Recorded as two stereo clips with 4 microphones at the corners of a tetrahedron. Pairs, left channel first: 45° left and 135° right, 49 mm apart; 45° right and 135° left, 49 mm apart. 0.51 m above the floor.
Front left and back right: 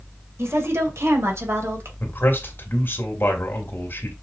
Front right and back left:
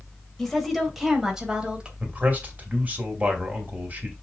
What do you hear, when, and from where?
0.4 s a woman speaking: 125° right, 2.5 m; by 1.9 s 150° right, 3 m
2.0 s a man speaking: 85° left, 2.5 m